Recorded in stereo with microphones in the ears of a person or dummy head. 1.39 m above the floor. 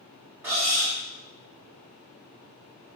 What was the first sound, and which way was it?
Cutlery clinking, 5° right (ahead or behind).